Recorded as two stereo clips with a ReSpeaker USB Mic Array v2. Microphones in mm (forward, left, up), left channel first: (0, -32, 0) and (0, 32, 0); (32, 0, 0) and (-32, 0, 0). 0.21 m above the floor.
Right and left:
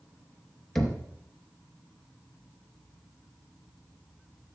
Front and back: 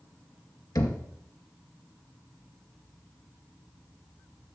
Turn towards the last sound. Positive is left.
turn(degrees=-5)